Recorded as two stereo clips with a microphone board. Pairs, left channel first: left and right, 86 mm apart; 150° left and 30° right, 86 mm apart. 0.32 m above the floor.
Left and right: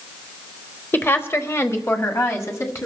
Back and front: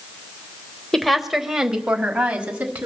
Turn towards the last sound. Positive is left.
turn(degrees=40)